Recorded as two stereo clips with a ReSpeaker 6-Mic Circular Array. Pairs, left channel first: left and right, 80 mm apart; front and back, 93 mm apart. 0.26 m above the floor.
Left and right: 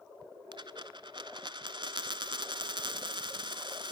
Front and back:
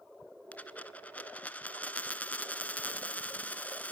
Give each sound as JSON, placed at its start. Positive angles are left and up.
{"t": 0.5, "sound": "a dropped coin", "azimuth_deg": -75, "distance_m": 0.9}